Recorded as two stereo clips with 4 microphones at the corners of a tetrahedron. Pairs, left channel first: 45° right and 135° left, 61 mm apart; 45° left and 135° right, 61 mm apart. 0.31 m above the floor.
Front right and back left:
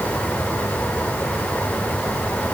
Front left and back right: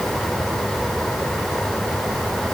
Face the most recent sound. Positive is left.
No sound to turn to.